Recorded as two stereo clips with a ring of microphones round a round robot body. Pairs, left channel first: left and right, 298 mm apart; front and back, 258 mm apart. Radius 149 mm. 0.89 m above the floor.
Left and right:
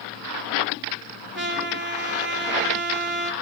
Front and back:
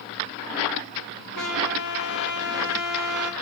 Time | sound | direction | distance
1.4 | a trumpet | 35° right | 1.7 m